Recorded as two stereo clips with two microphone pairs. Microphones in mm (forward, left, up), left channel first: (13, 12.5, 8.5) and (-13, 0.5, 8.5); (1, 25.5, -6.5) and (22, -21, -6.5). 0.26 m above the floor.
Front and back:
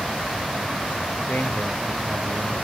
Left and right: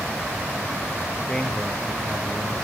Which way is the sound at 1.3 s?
40° left.